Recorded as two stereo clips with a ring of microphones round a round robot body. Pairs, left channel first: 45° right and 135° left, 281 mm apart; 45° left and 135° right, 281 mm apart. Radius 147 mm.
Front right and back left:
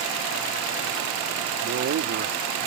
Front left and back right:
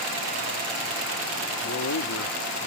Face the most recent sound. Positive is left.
turn(degrees=85)